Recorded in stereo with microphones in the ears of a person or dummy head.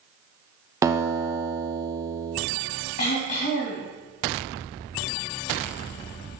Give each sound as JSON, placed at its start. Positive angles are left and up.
{"t": 0.8, "sound": "a guitar", "side_deg": -15, "distance_m": 0.8}
{"t": 3.0, "sound": "throat clearing", "side_deg": 40, "distance_m": 2.5}